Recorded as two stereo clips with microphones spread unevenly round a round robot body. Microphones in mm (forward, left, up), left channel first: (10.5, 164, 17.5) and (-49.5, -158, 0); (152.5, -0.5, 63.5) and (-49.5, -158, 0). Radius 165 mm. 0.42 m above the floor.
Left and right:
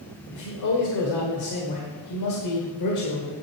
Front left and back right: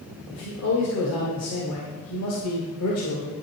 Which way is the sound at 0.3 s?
65° left.